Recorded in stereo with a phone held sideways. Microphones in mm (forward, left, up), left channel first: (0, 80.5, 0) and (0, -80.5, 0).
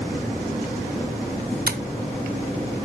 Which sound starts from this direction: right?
Tapping, at 1.7 s.